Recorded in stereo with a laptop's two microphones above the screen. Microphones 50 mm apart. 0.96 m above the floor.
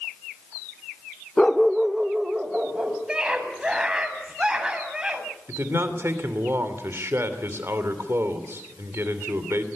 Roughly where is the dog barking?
Centre.